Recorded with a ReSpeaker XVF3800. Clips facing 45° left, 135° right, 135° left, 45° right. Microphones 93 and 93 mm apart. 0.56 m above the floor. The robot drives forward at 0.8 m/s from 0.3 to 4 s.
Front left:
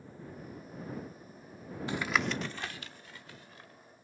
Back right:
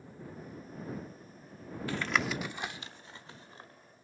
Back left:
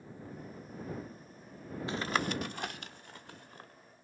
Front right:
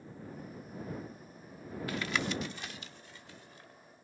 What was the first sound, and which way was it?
Tapping, 95° left.